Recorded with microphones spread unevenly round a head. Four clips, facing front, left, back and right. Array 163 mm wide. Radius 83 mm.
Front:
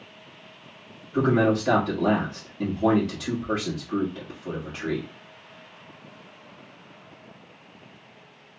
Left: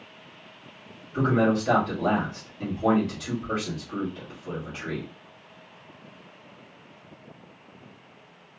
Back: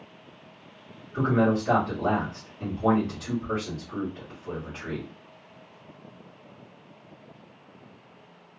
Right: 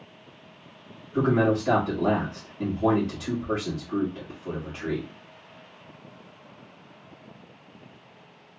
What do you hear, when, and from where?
1.1 s a man speaking: 20° right, 1.5 m